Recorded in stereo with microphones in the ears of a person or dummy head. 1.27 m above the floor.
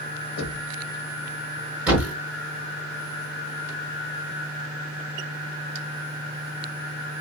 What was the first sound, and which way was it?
Knocking, 80° left.